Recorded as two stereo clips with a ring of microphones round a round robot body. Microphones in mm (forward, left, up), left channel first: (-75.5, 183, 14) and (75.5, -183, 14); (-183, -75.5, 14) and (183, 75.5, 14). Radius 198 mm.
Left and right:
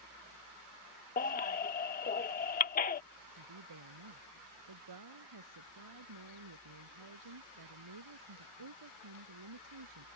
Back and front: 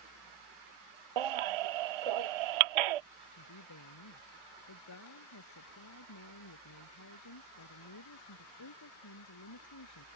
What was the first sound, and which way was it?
A baby crying, 45° left.